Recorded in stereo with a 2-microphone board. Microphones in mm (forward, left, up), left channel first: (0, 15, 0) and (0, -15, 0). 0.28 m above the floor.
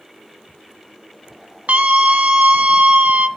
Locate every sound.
1.7 s a scream: 55° right (ahead or behind), 1.7 m